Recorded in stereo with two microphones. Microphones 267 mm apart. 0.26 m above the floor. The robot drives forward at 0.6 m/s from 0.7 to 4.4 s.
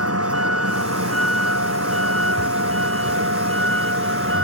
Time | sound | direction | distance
0.0 | a vehicle | 65° right (ahead or behind) | ?